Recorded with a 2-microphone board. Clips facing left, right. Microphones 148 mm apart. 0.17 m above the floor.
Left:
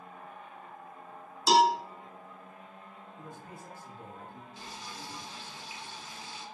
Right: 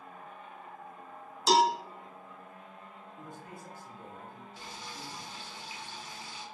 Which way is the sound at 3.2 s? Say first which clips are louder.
Even; 20° left (ahead or behind).